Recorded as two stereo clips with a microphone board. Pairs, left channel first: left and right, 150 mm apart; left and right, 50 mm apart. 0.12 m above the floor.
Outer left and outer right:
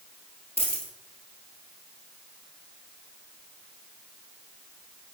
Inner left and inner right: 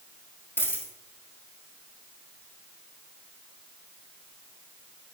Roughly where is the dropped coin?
Left.